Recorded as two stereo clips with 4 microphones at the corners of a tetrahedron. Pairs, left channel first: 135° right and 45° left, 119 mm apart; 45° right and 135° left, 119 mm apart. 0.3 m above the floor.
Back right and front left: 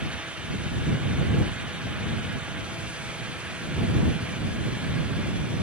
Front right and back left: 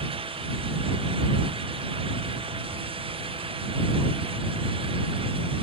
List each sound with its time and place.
Only background noise.